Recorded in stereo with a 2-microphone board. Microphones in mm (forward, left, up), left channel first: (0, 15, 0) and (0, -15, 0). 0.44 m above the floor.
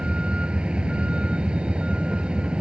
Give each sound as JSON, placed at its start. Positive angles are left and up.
{"t": 0.0, "sound": "a vehicle", "side_deg": -35}